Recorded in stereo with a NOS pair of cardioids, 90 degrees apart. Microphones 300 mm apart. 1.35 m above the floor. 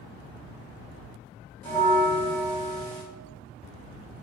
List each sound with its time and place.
1.6 s a bell: 5° left, 2 m